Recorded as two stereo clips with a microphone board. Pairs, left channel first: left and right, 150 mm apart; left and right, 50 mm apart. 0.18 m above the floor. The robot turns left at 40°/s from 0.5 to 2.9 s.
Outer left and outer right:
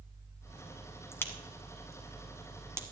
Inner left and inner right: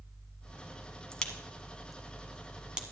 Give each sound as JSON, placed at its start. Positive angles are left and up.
{"t": 1.1, "sound": "a crack", "side_deg": 15, "distance_m": 1.2}